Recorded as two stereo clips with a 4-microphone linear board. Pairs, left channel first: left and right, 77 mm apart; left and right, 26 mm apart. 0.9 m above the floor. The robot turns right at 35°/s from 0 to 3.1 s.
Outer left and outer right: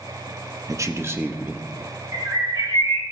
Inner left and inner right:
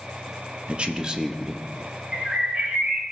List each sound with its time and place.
0.7 s a man speaking: 50° right, 0.8 m; by 1.7 s 15° right, 0.8 m
2.1 s a bird: 120° right, 2 m; by 3.0 s 85° right, 2 m